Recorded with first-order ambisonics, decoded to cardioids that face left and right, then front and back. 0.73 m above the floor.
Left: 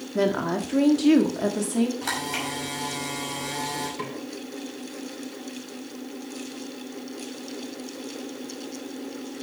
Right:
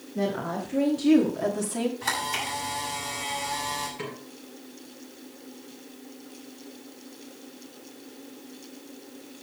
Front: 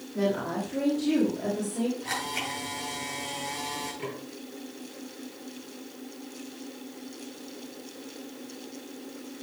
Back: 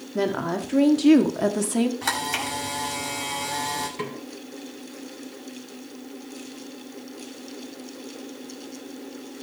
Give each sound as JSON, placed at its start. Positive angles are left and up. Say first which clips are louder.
{"t": 0.1, "sound": "a woman speaking", "louder": "left 5 dB, back 3 dB", "azimuth_deg": 130, "distance_m": 1.7}
{"t": 2.0, "sound": "a camera shutter", "louder": "even, back 5 dB", "azimuth_deg": 175, "distance_m": 5.5}
{"t": 4.0, "sound": "a snare drum", "louder": "left 3 dB, back 4 dB", "azimuth_deg": 155, "distance_m": 7.5}